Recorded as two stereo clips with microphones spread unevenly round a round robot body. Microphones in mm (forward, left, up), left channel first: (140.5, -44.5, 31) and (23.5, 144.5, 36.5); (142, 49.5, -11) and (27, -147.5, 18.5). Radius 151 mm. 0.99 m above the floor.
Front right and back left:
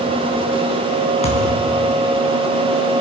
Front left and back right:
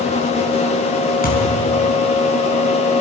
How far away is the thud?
About 4.5 m.